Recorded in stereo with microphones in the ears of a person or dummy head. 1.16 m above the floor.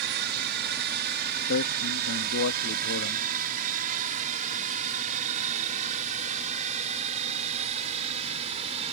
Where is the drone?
60° right (ahead or behind); by 8.9 s 40° right (ahead or behind).